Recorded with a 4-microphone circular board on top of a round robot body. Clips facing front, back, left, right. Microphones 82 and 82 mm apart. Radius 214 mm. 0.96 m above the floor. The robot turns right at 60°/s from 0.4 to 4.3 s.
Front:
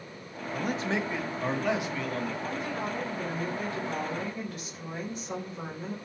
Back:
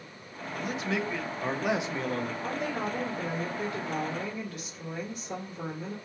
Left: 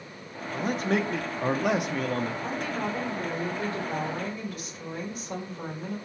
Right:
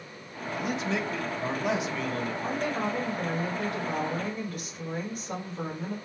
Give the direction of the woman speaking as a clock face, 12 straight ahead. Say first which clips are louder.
Back 1 dB, right 1 dB; 6 o'clock.